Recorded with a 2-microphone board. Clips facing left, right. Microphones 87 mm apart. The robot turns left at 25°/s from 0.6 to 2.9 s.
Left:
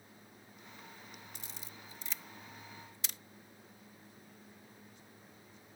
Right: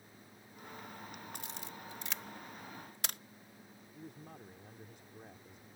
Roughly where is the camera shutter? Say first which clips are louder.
Right 5 dB; right.